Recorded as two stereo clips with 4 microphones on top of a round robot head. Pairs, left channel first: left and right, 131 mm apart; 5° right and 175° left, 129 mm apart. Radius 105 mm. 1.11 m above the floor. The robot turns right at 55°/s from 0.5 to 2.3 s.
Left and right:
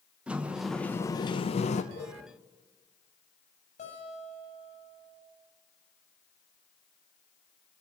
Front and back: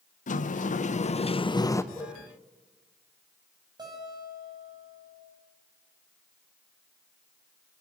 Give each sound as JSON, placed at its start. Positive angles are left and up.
{"t": 0.3, "sound": "a sliding door", "azimuth_deg": -10, "distance_m": 1.0}
{"t": 1.9, "sound": "a whoosh", "azimuth_deg": 75, "distance_m": 9.0}
{"t": 3.8, "sound": "a guitar", "azimuth_deg": 120, "distance_m": 9.5}